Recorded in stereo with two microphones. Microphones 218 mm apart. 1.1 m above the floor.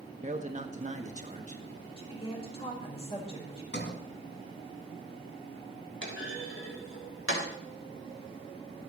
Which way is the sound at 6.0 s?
70° left (ahead or behind).